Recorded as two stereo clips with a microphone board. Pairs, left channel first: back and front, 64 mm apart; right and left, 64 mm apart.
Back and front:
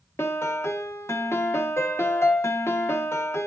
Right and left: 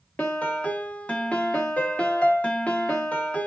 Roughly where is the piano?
Behind right.